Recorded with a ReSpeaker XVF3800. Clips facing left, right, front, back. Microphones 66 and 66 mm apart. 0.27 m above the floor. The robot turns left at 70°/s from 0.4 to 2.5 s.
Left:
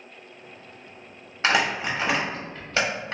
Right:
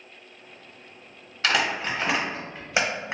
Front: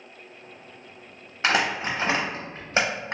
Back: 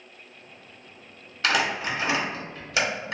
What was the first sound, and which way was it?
Crumpling, 50° left.